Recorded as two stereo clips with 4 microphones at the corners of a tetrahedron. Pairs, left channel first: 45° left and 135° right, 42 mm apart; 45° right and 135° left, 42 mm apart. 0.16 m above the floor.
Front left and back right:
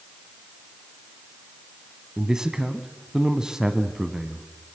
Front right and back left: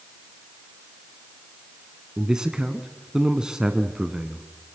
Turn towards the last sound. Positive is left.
turn(degrees=180)